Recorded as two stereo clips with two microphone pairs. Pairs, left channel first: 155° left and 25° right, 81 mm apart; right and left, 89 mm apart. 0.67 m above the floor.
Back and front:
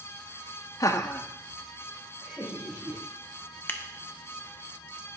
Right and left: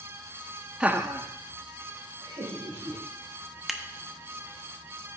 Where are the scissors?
175° left, 0.7 m.